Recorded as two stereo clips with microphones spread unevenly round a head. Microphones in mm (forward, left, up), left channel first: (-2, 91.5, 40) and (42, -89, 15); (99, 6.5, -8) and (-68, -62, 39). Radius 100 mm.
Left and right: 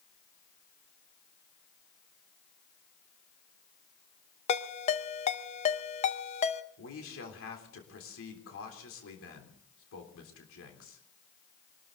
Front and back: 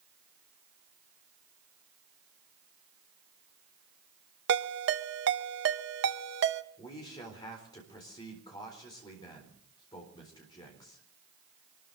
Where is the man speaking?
90° left, 3.5 m.